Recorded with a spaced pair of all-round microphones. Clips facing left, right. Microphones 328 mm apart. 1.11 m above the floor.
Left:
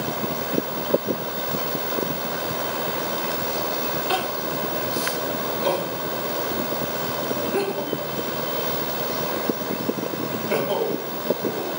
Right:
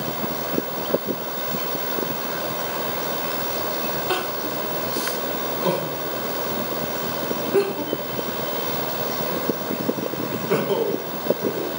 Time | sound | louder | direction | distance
4.1 | crying | even | 55° right (ahead or behind) | 1.6 m